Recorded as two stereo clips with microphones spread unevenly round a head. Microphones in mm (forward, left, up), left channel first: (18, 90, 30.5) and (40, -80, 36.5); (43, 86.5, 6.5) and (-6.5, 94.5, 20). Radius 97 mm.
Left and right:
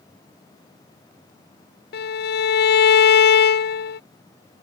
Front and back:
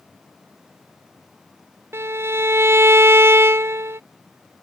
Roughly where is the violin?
Behind left.